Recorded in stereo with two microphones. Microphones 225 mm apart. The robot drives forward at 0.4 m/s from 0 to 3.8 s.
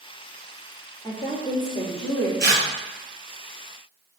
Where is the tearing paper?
50° right (ahead or behind), 0.8 m.